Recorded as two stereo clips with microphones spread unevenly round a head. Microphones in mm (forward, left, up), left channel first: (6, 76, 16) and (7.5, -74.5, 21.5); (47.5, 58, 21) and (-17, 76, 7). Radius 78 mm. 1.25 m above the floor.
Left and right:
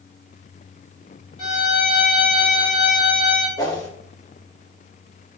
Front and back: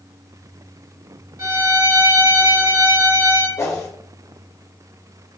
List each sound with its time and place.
1.4 s a violin: 145° left, 2.0 m
3.6 s a whoosh: 25° left, 1.1 m